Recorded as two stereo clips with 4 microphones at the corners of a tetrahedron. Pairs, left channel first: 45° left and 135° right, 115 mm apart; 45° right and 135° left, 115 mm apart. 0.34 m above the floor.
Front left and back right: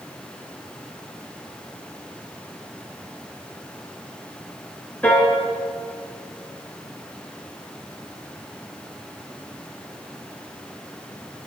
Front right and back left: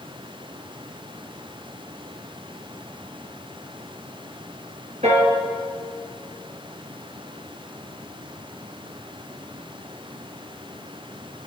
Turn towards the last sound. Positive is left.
turn(degrees=120)